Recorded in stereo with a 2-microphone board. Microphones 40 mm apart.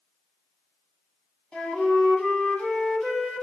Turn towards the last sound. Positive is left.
turn(degrees=30)  # may be behind; listen again after turning